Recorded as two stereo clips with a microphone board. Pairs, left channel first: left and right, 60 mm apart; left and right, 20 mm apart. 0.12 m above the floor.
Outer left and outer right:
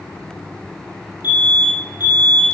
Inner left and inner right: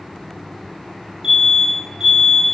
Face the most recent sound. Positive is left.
turn(degrees=-30)  # may be behind; listen again after turning